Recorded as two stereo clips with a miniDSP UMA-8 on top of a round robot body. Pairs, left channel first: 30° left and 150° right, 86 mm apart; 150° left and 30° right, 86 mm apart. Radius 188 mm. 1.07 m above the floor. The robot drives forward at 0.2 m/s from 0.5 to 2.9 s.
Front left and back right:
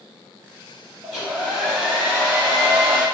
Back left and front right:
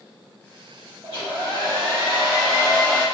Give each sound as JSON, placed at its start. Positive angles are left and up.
{"t": 1.0, "sound": "a hair dryer", "azimuth_deg": -75, "distance_m": 1.9}